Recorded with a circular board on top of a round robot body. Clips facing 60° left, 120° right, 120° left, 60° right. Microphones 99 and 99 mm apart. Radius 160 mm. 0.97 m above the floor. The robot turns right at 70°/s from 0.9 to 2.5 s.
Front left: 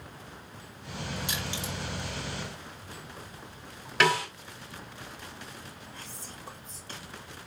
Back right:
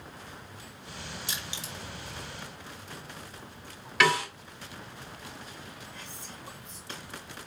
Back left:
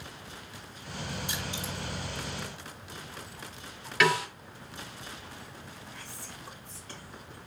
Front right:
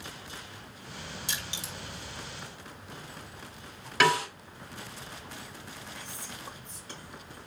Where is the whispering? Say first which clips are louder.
Even, front right 2 dB; 10° left, 1.4 m.